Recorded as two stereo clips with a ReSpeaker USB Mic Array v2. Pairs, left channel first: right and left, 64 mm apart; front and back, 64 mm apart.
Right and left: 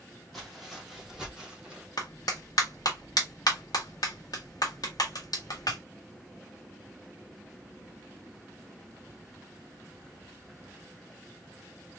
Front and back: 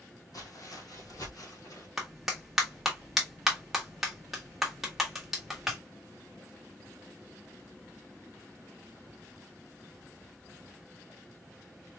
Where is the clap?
95° right, 1.5 m.